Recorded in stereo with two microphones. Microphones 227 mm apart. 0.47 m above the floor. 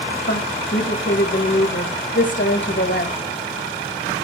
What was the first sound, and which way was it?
A woman speaking, 65° left (ahead or behind).